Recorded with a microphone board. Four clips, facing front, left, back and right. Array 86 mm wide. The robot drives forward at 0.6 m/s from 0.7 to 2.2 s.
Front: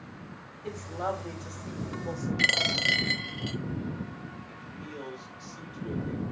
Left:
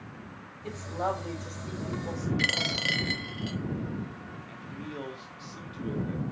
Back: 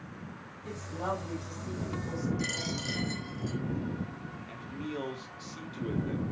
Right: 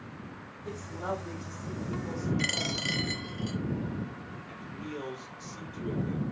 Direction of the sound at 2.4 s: 25° left.